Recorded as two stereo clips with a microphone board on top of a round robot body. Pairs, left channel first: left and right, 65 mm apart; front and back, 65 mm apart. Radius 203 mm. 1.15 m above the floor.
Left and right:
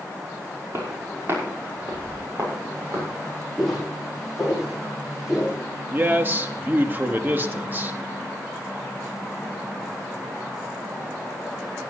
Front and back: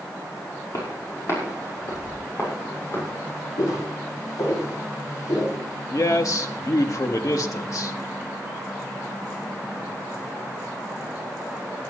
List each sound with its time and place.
0.7 s footsteps: 45° right, 5.5 m; by 3.1 s 50° right, 7.5 m
3.6 s footsteps: straight ahead, 5 m; by 5.5 s 15° right, 5 m
5.9 s a man speaking: 35° right, 1.4 m